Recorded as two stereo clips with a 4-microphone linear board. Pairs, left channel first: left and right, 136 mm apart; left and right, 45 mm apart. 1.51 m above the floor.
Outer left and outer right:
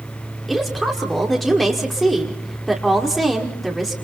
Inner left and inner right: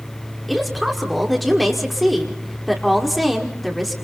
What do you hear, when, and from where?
0.5 s a woman speaking: centre (ahead or behind), 5 m